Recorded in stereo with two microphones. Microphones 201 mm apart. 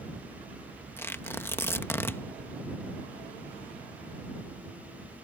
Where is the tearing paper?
10° left (ahead or behind).